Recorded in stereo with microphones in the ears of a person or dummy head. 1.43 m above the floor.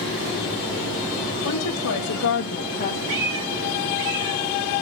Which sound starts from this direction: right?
A cat meowing, at 3.1 s.